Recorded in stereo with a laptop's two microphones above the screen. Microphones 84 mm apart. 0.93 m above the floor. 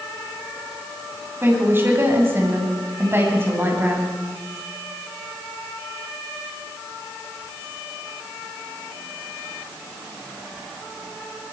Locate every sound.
1.4 s a woman speaking: 25° right (ahead or behind), 8.5 m